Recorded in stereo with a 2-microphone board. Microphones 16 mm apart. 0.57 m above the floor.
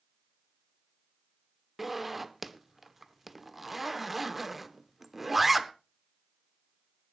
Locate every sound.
1.8 s a zipper: 10° right (ahead or behind), 0.7 m